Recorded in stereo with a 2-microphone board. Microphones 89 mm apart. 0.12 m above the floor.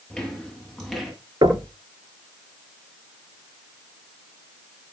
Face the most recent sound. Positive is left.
turn(degrees=-60)  # may be behind; listen again after turning